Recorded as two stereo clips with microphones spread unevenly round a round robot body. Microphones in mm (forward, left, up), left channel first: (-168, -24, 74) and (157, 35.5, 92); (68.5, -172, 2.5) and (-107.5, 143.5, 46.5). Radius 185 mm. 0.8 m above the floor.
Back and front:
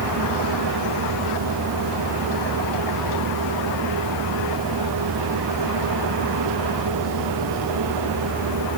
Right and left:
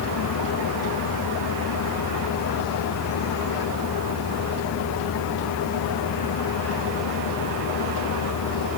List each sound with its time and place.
Only background noise.